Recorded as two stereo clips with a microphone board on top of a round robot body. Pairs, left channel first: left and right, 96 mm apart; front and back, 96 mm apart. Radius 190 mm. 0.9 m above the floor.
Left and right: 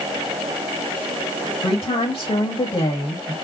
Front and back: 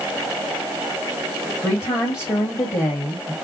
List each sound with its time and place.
1.6 s a woman speaking: 65° left, 2 m